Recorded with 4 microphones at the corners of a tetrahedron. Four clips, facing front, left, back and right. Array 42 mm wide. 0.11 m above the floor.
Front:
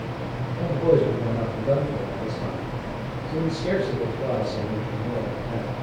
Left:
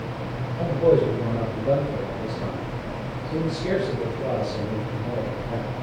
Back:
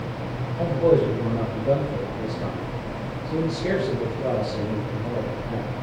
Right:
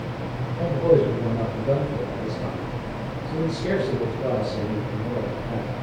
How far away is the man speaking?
About 2.5 m.